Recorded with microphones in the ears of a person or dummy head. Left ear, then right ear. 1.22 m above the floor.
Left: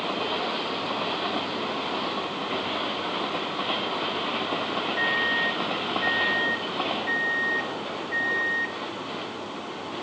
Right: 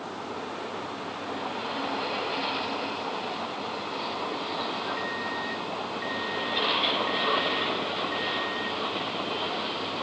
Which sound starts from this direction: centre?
A microwave, at 5.0 s.